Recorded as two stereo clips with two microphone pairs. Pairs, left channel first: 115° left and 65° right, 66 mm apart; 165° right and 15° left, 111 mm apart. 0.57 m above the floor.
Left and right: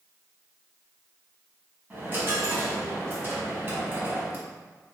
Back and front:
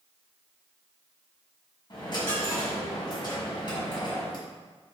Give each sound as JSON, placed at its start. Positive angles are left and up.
{"t": 1.9, "sound": "a dropped coin", "azimuth_deg": -125, "distance_m": 1.2}